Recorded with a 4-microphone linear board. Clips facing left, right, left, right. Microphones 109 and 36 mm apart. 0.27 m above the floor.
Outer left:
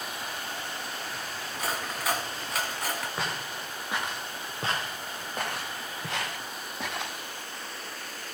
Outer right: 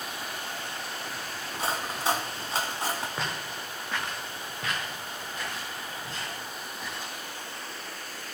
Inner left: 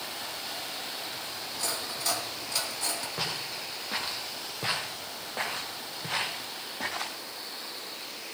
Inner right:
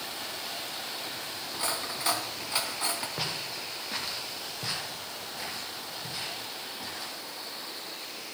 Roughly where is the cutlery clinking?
Right.